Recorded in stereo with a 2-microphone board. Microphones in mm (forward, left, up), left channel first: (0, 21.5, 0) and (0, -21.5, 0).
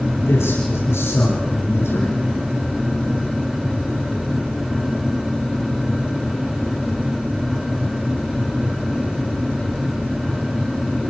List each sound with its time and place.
0.3 s a man speaking: 75° left (ahead or behind), 8.5 m; by 2.3 s 85° left, 6 m